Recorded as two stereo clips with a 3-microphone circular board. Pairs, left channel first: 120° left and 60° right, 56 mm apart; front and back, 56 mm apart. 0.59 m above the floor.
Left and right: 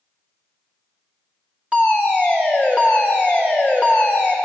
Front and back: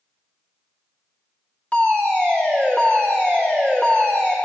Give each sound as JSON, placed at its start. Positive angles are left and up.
{"t": 1.7, "sound": "a fire alarm", "azimuth_deg": -20, "distance_m": 2.0}